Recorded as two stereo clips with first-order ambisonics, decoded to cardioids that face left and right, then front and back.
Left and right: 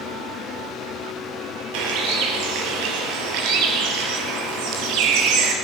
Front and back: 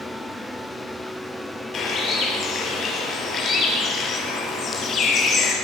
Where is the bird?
65° right, 4.5 m.